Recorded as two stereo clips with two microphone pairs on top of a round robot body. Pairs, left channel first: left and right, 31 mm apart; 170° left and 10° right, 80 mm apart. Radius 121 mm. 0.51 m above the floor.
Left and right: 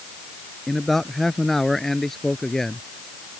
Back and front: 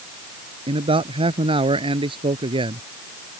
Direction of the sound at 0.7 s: Straight ahead.